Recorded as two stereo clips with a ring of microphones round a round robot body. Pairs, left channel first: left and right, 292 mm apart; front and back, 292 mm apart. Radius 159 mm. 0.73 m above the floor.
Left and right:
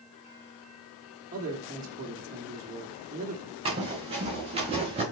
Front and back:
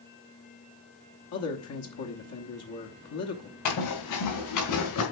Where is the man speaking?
30° right, 1.1 m.